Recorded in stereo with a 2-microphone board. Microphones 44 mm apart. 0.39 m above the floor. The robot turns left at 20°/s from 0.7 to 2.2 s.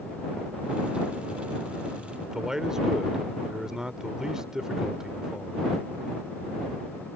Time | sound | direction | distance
2.2 | a man speaking | 15° right (ahead or behind) | ?